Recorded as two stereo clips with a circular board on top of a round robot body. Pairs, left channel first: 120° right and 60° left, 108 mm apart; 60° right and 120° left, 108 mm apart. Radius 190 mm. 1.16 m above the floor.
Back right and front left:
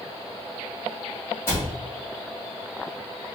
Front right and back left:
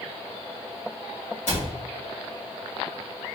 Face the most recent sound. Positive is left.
turn(degrees=-50)